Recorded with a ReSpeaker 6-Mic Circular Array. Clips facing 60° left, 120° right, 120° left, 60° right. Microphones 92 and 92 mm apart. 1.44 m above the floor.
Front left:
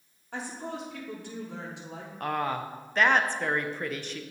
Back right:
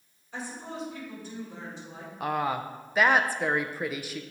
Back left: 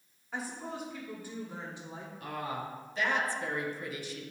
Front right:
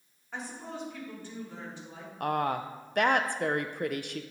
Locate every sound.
0.3 s a woman speaking: 30° left, 3 m; by 2.1 s 50° left, 3 m
2.2 s a woman speaking: 40° right, 0.5 m